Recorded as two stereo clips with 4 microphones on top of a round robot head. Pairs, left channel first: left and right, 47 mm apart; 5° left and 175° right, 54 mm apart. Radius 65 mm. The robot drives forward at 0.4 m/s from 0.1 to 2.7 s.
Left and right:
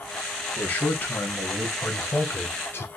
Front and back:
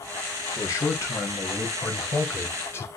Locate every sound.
0.6 s a man speaking: 35° left, 2 m; by 2.9 s 50° left, 1.6 m